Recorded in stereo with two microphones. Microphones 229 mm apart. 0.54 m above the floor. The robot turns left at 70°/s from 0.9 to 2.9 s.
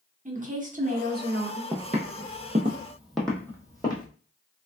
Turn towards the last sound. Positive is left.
turn(degrees=20)  # may be behind; listen again after turning